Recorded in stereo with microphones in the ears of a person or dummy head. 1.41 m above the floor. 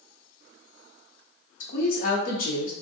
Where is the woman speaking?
45° left (ahead or behind), 0.7 m.